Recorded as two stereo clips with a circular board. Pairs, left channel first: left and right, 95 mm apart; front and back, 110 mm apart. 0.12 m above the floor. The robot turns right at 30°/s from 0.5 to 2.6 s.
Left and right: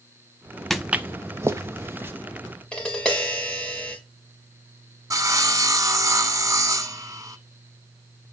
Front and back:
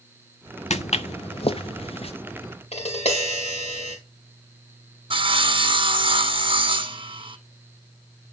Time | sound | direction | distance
0.7 | footsteps | straight ahead | 0.6 m
2.7 | tapping | 10° left | 4 m
5.1 | sawing | 145° right | 0.9 m